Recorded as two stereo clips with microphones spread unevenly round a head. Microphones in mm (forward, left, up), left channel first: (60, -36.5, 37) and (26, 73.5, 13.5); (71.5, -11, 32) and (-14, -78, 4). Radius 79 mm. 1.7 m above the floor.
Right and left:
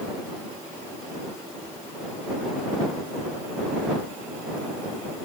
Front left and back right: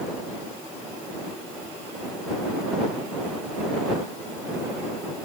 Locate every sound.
Only background noise.